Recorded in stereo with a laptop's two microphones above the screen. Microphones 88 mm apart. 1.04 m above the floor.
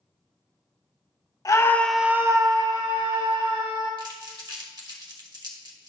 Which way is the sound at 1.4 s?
40° left (ahead or behind).